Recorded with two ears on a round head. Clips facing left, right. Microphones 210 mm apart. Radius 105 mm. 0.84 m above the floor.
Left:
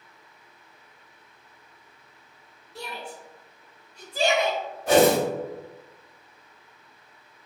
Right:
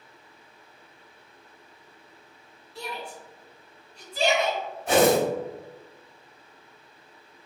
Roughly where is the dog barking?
No dog barking in this recording.